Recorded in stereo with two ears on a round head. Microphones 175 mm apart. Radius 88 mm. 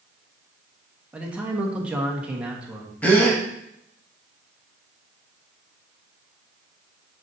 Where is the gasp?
10° left (ahead or behind), 1.2 m.